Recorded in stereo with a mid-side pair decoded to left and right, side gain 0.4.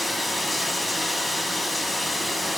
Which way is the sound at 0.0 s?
20° left.